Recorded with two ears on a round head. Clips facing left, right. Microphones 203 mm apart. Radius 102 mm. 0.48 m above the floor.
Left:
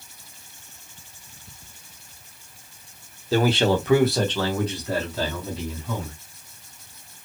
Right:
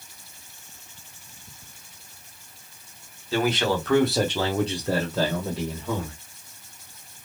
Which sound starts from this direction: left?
A man speaking, at 3.3 s.